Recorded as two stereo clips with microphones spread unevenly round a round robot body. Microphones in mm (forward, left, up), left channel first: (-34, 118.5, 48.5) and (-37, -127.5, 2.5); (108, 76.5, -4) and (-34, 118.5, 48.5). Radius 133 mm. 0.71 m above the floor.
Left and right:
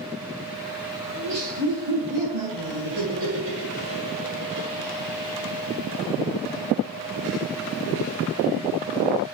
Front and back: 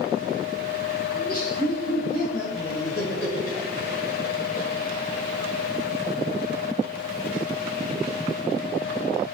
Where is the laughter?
75° right, 4 m; by 4.8 s 60° right, 6.5 m.